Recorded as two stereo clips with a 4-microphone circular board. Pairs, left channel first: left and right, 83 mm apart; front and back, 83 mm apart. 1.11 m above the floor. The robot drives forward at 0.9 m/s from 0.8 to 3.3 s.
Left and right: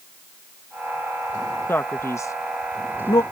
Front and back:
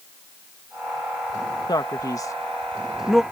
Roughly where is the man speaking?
Ahead left.